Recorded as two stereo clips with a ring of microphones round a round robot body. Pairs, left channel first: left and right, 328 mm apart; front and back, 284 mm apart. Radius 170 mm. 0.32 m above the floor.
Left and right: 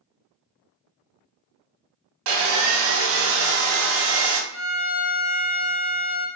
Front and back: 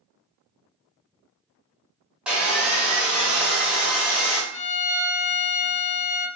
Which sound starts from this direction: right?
Sawing, at 2.3 s.